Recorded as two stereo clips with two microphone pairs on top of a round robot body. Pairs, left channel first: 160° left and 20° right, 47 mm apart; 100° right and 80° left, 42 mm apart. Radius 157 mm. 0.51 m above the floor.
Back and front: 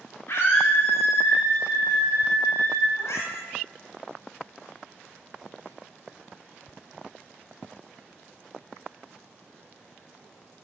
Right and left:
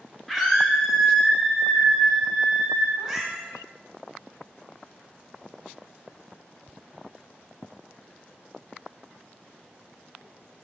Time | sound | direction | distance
0.3 | a scream | 175° left | 3 m
3.0 | a cat meowing | 165° left | 1.8 m